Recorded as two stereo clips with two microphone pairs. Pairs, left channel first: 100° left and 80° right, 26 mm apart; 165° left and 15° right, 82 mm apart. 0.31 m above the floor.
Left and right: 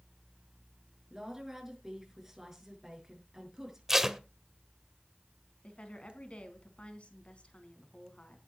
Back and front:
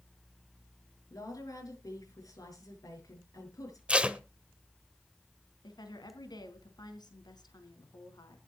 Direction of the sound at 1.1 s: 155° right.